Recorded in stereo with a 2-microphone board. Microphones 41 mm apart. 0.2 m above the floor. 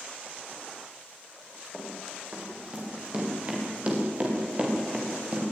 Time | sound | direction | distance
1.7 | running footsteps | 30° right (ahead or behind) | 8.5 m